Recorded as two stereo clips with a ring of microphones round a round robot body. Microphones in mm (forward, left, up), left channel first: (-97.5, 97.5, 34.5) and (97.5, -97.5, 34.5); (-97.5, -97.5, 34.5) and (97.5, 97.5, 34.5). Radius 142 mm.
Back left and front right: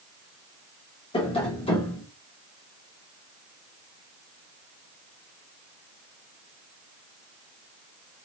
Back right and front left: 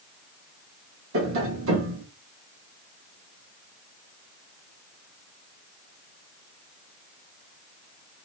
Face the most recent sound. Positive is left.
turn(degrees=70)